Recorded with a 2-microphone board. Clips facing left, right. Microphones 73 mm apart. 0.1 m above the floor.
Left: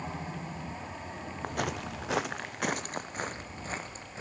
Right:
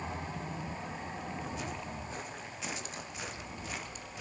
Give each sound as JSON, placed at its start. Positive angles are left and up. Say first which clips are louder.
{"t": 1.4, "sound": "footsteps", "louder": "left 5 dB", "side_deg": 55, "distance_m": 1.4}